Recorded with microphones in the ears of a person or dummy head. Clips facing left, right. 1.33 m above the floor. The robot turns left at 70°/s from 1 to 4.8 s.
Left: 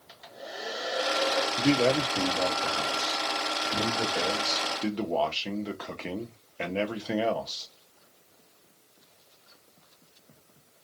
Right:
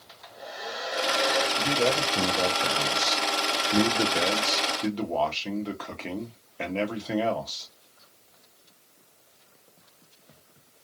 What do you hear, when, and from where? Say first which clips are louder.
0.1 s a hair dryer: even; 10° left, 1.6 m; by 1.5 s 20° right, 1.6 m
1.6 s a man speaking: left 6 dB; 40° left, 0.7 m; by 7.7 s 170° left, 0.7 m